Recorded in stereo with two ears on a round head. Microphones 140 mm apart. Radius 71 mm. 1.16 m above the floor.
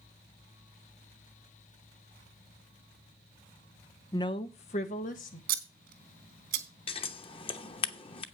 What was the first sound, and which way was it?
A woman speaking, 20° left (ahead or behind).